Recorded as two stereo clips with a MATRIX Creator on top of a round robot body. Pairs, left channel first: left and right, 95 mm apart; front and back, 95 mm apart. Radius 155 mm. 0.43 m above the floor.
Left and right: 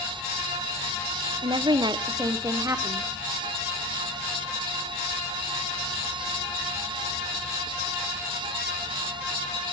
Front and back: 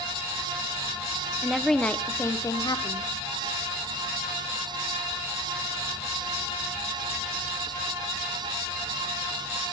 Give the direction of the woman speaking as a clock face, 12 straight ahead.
3 o'clock.